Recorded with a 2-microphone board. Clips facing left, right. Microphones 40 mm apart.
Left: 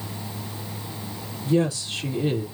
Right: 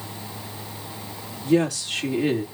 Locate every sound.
1.4 s a woman speaking: 75° right (ahead or behind), 3 m